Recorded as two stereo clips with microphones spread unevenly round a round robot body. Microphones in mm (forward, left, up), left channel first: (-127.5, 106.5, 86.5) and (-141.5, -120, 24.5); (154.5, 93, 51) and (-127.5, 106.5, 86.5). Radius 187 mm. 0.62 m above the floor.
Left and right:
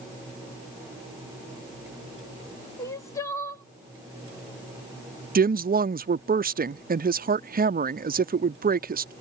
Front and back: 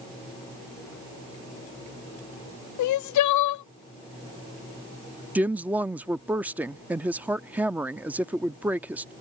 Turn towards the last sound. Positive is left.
turn(degrees=-95)